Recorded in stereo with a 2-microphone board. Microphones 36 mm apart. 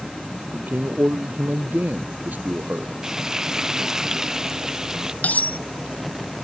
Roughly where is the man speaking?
Right.